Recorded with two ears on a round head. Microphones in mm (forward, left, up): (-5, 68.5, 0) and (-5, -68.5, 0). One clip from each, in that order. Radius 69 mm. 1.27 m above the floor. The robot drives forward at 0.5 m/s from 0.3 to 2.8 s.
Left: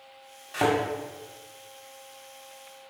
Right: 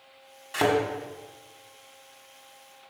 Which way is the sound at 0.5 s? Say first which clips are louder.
Right 1 dB; 20° right (ahead or behind).